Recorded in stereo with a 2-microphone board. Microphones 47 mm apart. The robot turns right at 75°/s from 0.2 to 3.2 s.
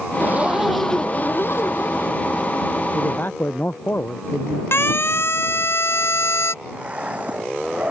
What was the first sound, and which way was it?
A zipper, 40° right.